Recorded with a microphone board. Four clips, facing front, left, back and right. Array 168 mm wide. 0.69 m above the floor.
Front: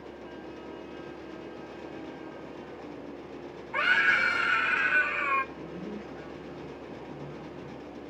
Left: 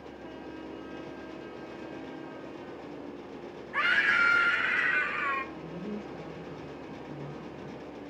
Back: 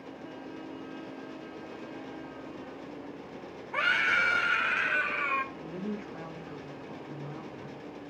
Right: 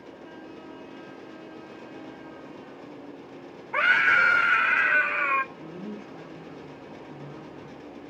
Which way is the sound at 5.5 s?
Straight behind.